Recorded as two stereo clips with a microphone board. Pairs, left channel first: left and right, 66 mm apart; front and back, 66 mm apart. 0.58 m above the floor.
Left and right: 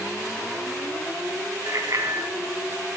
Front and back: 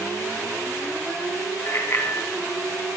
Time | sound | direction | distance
1.7 | a bicycle bell | 50° right | 3.5 m